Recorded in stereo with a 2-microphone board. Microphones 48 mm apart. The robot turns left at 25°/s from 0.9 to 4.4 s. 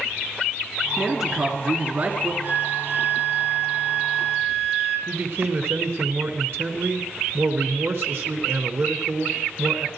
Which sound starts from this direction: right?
A man speaking, at 5.1 s.